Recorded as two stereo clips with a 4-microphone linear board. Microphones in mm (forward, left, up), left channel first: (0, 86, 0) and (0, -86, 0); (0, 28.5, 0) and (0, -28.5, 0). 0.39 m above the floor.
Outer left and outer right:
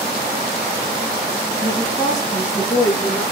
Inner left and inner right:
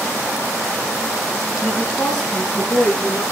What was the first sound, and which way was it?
A woman speaking, 15° left (ahead or behind).